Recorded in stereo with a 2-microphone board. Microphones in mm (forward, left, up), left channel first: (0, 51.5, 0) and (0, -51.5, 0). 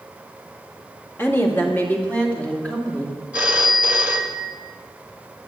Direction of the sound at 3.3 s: 15° right (ahead or behind).